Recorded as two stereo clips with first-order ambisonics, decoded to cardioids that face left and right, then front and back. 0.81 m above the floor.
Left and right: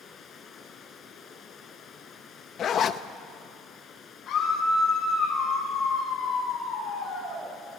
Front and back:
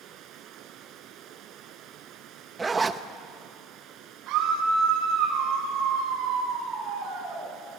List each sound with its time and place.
0.0 s running water: 145° left, 1.2 m
2.6 s a zipper: 115° left, 0.6 m
4.3 s a scream: 140° left, 6 m